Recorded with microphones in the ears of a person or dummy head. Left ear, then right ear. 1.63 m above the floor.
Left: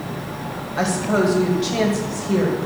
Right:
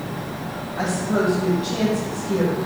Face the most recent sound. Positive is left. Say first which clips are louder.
# left 3 dB
turn(degrees=70)  # may be behind; listen again after turning